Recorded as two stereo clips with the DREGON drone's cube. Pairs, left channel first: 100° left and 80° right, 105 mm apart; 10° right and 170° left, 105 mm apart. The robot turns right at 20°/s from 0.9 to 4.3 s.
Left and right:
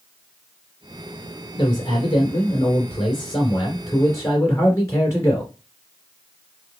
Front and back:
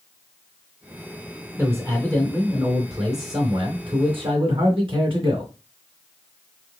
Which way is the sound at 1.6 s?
105° left.